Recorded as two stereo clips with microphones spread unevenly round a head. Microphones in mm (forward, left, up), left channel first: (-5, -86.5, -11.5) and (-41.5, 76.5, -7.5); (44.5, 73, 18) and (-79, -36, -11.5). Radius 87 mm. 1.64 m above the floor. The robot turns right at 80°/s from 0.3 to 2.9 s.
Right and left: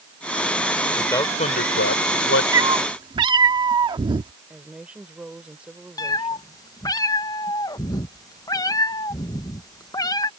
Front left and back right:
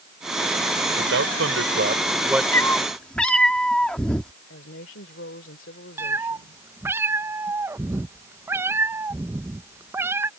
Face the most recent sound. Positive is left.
turn(degrees=-55)